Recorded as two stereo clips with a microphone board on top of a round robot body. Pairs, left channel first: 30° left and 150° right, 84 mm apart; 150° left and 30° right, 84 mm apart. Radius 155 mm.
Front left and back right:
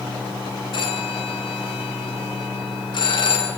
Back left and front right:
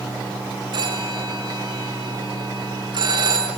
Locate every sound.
0.7 s a phone ringing: straight ahead, 7.5 m